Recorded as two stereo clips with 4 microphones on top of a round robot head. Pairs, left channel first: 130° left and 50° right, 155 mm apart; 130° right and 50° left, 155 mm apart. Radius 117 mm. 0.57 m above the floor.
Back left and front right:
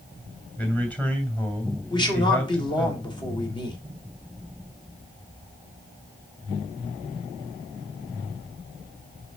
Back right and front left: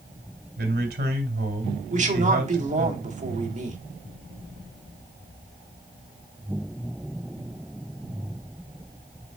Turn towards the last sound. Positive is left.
turn(degrees=75)